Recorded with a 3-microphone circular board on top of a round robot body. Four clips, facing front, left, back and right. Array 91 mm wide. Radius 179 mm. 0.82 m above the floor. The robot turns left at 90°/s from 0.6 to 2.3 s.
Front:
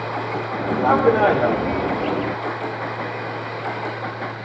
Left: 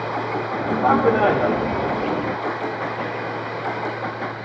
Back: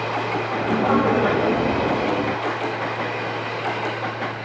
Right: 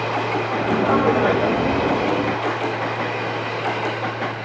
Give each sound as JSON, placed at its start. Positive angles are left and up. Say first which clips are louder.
{"t": 0.8, "sound": "a man speaking", "louder": "left 2 dB, front 4 dB", "azimuth_deg": 95, "distance_m": 3.5}